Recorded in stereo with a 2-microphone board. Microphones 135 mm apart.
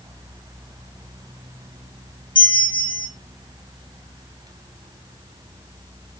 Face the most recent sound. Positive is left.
turn(degrees=35)  # may be behind; listen again after turning